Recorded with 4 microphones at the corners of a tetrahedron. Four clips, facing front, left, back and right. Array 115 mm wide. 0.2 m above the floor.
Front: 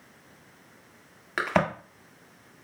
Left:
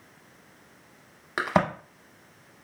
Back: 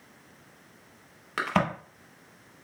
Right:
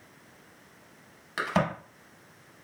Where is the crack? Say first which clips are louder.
Left 3 dB, front 2 dB; 95° left, 0.5 m.